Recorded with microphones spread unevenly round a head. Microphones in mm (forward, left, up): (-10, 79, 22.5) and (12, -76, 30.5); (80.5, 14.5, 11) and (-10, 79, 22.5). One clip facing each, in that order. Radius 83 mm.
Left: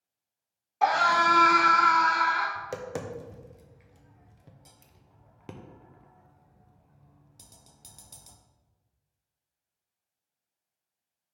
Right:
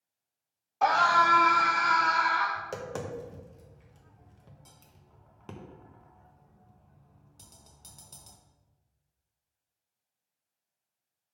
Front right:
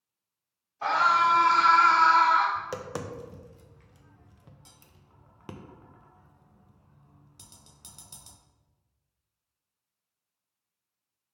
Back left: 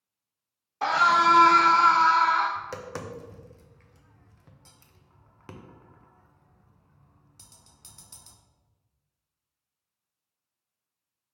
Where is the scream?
Straight behind, 1.0 m; by 2.5 s 50° left, 1.2 m.